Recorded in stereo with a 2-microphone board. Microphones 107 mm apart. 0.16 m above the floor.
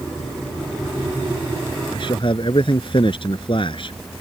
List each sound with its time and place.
1.9 s a man speaking: 55° left (ahead or behind)